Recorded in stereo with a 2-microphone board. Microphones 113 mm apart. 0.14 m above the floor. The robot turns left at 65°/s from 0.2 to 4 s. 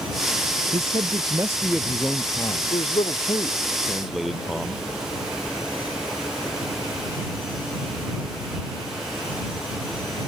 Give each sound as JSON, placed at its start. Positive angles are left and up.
{"t": 0.7, "sound": "a man speaking", "azimuth_deg": -105}
{"t": 2.7, "sound": "a man speaking", "azimuth_deg": 85}